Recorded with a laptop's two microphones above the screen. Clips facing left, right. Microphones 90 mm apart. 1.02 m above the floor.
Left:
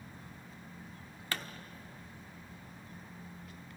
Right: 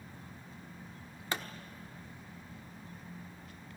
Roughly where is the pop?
Right.